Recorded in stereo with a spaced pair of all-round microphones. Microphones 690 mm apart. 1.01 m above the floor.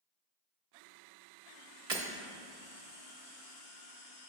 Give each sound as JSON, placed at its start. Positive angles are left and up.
{"t": 1.9, "sound": "breaking glass", "side_deg": -65, "distance_m": 1.1}